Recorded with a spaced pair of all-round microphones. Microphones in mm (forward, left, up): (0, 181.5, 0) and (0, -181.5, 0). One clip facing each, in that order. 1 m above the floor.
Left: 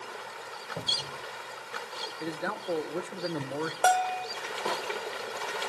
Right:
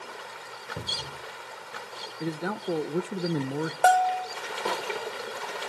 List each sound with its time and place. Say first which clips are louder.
0.8 s a cupboard door: even; 20° right (ahead or behind), 1.2 m
2.2 s a man speaking: right 4 dB; 45° right (ahead or behind), 0.6 m
3.8 s a bell: right 5 dB; 10° left (ahead or behind), 1.3 m